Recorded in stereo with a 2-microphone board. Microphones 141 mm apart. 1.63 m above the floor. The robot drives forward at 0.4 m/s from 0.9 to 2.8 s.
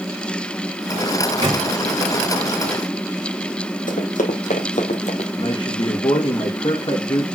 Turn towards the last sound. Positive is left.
turn(degrees=35)  # may be behind; listen again after turning